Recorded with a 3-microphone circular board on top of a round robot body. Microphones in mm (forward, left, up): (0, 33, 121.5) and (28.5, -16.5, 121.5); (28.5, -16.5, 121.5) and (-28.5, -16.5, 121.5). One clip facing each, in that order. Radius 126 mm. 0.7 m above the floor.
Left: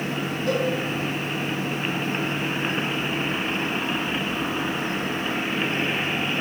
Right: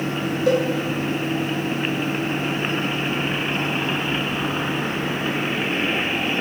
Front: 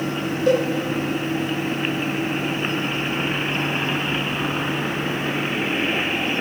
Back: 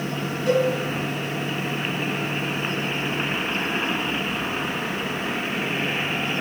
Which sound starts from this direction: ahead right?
A cowbell, at 0.5 s.